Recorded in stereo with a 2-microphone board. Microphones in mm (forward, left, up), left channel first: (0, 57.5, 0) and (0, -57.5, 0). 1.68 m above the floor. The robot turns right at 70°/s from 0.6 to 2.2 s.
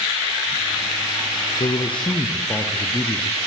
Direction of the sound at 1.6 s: 110° left.